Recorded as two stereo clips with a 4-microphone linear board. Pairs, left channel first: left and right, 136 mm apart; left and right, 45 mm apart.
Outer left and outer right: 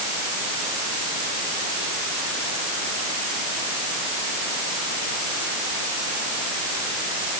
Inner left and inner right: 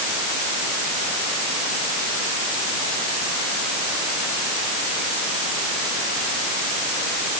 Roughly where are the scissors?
I don't hear scissors.